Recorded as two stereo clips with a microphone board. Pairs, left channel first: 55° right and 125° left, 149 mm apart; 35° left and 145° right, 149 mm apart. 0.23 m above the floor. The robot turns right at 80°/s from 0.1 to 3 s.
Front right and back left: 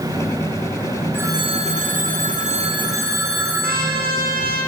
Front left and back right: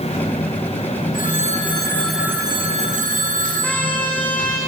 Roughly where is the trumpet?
Behind left.